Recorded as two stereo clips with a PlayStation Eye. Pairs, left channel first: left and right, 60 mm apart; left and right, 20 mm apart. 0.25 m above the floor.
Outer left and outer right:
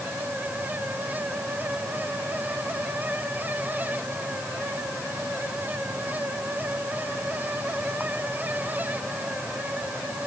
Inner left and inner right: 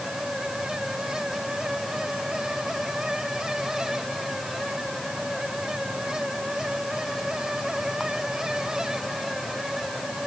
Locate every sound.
Only background noise.